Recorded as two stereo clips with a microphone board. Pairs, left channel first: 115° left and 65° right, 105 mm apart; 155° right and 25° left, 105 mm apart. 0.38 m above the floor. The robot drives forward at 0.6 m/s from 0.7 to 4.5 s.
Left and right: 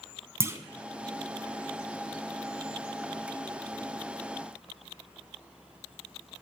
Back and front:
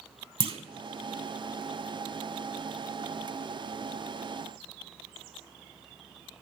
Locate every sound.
0.4 s a clunk: 5° right, 0.5 m